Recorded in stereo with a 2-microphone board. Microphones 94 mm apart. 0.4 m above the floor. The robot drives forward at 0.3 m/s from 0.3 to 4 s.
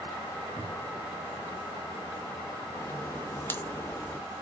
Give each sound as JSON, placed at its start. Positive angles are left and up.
{"t": 0.6, "sound": "a cupboard door", "side_deg": -35, "distance_m": 0.6}
{"t": 2.8, "sound": "a crack", "side_deg": 25, "distance_m": 0.5}